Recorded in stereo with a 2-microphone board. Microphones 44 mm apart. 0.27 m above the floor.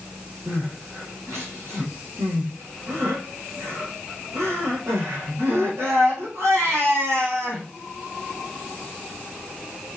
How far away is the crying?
About 5.5 m.